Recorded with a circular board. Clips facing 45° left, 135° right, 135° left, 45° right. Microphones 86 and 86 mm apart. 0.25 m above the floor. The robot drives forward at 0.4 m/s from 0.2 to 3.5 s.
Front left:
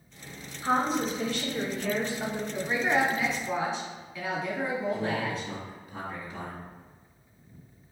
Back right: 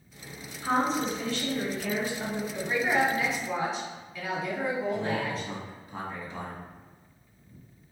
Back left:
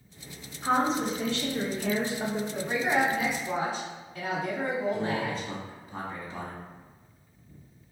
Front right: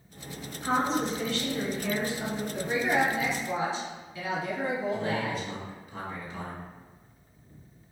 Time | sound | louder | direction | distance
0.6 | a woman speaking | even, back left 1 dB | 75° left | 0.9 m
2.5 | a woman speaking | even, front right 1 dB | 125° left | 1.4 m
4.9 | a man speaking | even, even | straight behind | 1.6 m